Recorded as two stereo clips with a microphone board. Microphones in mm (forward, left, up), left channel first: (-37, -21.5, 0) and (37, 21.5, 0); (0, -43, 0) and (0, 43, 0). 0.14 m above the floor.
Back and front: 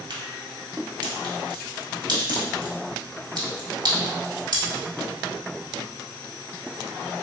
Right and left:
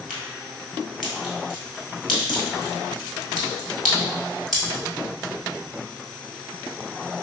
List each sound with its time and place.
0.1 s a crack: straight ahead, 1.4 m